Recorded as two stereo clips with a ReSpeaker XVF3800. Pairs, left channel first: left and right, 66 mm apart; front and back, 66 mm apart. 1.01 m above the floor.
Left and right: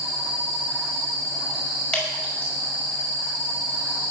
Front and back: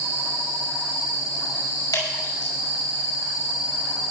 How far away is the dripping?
About 5.5 m.